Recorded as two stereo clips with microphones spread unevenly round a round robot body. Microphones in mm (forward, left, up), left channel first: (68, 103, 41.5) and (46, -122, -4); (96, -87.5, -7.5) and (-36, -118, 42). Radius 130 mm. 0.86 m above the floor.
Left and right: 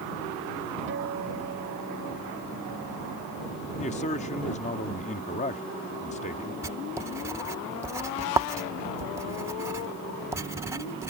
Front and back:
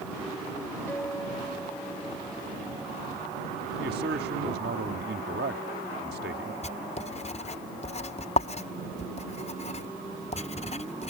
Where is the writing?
20° right.